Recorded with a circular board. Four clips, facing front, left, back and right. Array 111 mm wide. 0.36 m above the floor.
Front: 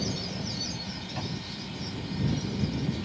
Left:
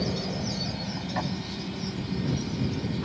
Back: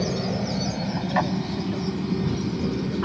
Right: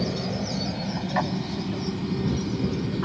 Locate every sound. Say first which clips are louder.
0.0 s an aircraft: right 2 dB, back 8 dB; 170° right; by 3.0 s 155° right